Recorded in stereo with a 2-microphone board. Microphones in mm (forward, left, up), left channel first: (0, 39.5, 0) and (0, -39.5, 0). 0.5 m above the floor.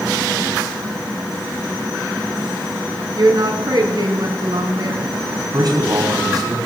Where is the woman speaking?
60° right (ahead or behind), 4 m.